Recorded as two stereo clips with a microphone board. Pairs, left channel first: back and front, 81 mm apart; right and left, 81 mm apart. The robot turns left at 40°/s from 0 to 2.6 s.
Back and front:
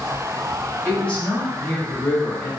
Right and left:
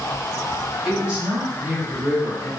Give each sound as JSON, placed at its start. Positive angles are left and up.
{"t": 0.8, "sound": "a woman speaking", "azimuth_deg": 145, "distance_m": 1.5}